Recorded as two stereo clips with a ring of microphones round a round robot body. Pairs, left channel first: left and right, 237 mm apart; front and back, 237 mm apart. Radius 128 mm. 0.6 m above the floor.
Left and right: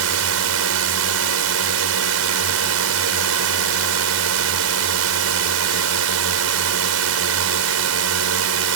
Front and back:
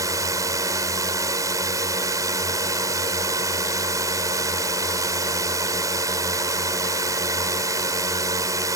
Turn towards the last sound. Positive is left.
turn(degrees=-105)